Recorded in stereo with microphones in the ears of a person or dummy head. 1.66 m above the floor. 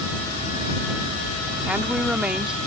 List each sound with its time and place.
1.7 s a woman speaking: 5° right (ahead or behind)